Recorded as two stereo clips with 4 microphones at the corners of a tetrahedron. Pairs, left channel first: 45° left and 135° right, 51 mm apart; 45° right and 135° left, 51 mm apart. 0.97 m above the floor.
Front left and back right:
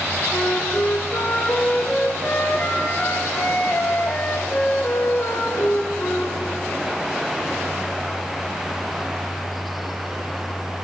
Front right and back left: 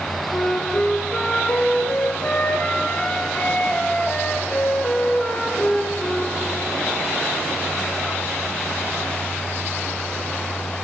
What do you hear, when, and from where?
0.3 s a flute: 5° left, 0.7 m